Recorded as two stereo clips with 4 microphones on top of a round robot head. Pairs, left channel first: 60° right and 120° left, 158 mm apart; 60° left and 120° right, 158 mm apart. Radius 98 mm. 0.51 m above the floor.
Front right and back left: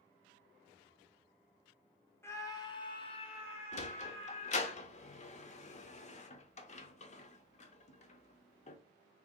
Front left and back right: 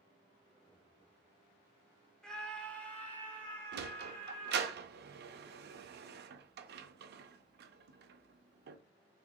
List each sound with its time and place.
2.2 s a scream: 15° right, 0.9 m
3.7 s a sliding door: 105° right, 0.6 m